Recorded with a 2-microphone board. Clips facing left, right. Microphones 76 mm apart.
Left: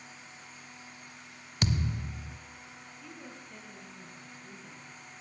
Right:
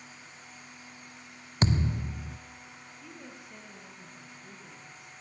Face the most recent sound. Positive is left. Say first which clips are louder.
# even
turn(degrees=-10)  # may be behind; listen again after turning